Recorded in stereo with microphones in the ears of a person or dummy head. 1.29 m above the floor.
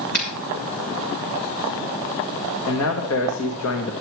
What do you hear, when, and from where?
0.1 s a finger snap: 45° left (ahead or behind), 3 m
2.7 s a man speaking: 80° left, 1.5 m